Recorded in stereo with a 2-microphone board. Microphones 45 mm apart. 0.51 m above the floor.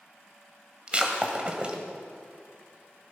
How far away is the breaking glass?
About 1.7 m.